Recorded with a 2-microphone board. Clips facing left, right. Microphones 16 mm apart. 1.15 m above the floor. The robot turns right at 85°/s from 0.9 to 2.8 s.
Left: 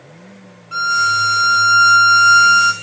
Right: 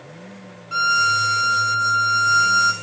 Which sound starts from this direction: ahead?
A violin, at 0.7 s.